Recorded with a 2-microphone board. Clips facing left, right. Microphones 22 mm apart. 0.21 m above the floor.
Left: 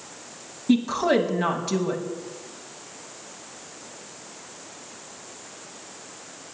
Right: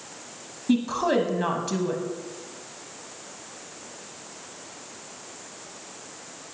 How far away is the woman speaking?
About 1.0 m.